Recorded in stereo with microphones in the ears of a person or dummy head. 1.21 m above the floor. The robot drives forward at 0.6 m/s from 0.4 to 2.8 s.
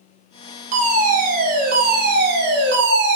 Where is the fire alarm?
40° right (ahead or behind), 2.5 m; by 3.2 s 55° right (ahead or behind), 1.7 m.